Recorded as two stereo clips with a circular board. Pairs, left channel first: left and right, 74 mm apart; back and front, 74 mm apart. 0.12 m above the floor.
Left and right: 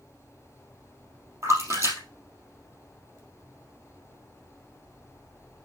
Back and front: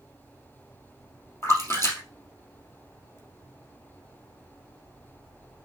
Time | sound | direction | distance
1.4 | a splash | 130° right | 3 m